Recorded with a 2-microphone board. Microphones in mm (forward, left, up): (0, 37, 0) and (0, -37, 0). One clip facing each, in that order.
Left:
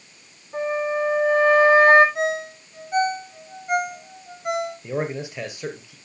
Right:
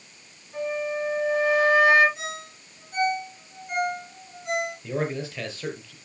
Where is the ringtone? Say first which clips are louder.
Left 12 dB; 60° left (ahead or behind), 5 m.